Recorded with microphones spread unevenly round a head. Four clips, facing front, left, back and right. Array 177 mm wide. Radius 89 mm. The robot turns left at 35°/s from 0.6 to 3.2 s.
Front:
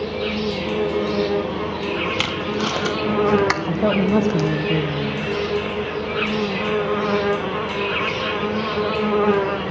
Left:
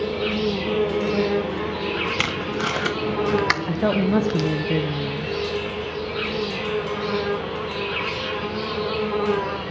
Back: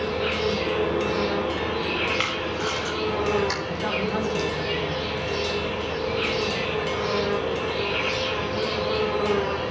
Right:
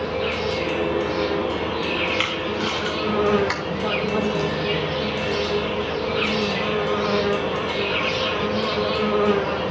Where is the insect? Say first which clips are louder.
Left 1 dB, front 1 dB; 70° left, 1.6 m; by 9.7 s 20° right, 1.6 m.